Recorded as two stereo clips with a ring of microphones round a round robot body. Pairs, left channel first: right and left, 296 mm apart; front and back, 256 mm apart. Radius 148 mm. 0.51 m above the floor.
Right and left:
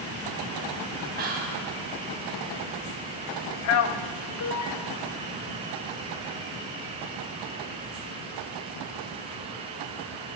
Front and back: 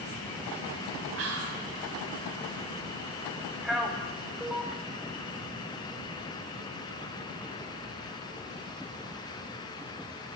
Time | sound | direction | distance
1.2 | whispering | 150° left | 3 m
3.6 | a man speaking | 90° right | 1.1 m